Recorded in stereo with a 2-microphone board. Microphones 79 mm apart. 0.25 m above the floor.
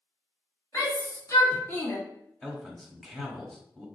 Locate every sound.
0.7 s a shout: 50° left (ahead or behind), 2 m; by 2.0 s 30° left (ahead or behind), 1.8 m
2.4 s a man speaking: 10° left (ahead or behind), 1.0 m